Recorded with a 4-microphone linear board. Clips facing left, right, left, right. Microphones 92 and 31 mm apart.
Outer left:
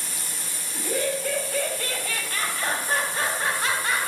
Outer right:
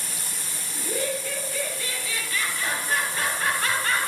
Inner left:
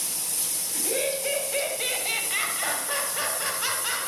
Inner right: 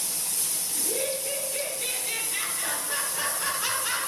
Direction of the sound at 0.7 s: 75° left (ahead or behind).